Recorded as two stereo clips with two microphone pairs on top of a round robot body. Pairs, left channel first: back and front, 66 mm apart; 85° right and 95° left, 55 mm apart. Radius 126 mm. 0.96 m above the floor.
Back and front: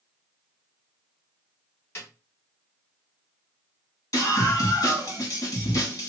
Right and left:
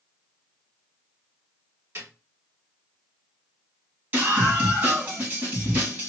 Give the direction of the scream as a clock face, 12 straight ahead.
7 o'clock.